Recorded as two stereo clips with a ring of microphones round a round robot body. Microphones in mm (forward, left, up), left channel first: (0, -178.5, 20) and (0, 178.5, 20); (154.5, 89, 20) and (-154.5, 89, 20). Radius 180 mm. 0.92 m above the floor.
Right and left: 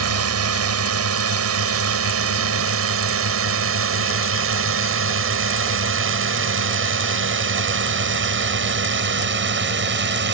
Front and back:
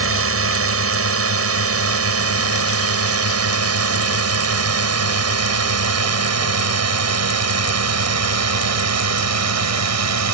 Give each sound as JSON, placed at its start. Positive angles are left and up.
{"t": 0.0, "sound": "a drone", "azimuth_deg": 140}